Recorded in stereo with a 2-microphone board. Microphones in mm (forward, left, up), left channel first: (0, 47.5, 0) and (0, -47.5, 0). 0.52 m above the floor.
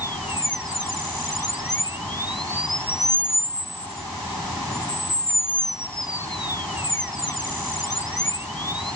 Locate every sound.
Only background noise.